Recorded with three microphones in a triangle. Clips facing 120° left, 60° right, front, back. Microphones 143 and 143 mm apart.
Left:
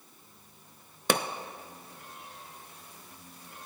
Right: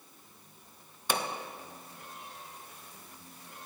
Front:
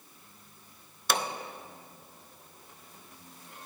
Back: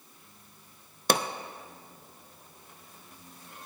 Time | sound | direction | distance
1.1 | a pop | 140° left | 0.5 m